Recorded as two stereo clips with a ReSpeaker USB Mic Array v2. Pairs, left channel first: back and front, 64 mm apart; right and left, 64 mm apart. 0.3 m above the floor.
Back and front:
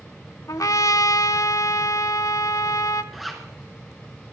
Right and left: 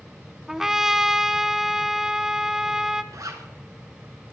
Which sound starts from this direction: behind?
A trumpet, at 0.5 s.